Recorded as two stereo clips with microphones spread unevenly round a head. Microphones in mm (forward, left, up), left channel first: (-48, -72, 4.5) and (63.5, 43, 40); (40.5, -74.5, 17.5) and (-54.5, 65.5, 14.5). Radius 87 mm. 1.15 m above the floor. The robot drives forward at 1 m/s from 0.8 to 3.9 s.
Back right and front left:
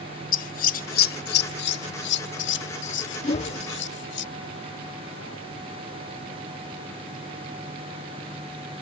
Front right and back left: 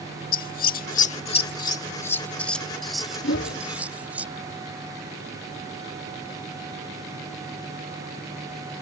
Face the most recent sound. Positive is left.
turn(degrees=-105)